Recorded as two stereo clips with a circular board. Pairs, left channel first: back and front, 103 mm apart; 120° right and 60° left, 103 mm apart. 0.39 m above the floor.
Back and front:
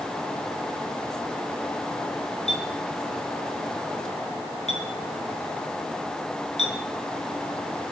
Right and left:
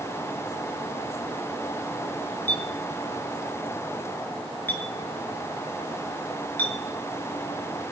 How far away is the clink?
About 4 m.